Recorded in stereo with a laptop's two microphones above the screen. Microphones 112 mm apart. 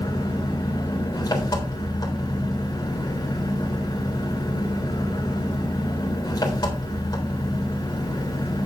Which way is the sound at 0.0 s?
35° left (ahead or behind).